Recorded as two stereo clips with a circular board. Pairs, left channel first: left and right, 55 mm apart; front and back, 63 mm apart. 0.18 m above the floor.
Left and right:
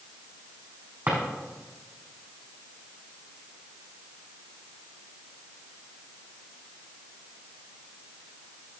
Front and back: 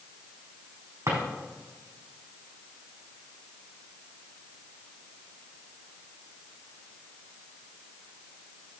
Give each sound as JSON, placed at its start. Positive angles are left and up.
{"t": 1.1, "sound": "a drawer", "azimuth_deg": -150, "distance_m": 4.5}